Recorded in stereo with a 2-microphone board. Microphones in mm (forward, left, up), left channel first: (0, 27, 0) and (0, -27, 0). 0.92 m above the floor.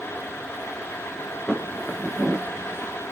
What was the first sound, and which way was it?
Footsteps, 10° left (ahead or behind).